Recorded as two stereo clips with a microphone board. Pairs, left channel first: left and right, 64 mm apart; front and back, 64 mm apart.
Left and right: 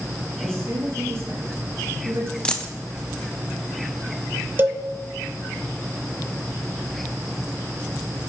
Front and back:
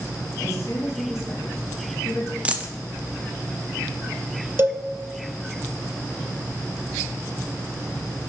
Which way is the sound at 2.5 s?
140° left.